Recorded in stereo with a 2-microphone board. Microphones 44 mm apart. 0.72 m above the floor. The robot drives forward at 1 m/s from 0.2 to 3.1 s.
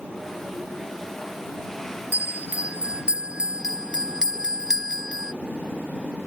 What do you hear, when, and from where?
2.1 s a bell: 45° right (ahead or behind); by 5.3 s 25° right (ahead or behind)